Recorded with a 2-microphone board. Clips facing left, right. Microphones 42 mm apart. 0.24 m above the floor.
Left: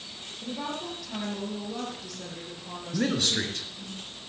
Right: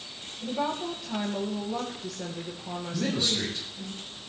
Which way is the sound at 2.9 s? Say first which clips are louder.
Left 2 dB; 65° left (ahead or behind).